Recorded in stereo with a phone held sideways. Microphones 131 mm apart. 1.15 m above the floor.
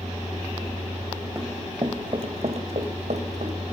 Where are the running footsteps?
15° right (ahead or behind), 1.2 m; by 3.6 s 60° right (ahead or behind), 3 m.